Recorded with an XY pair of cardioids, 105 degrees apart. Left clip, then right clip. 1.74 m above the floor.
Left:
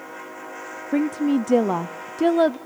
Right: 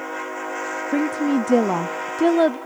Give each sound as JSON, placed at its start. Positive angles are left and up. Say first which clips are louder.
{"t": 0.9, "sound": "a woman speaking", "louder": "even", "azimuth_deg": -5, "distance_m": 0.6}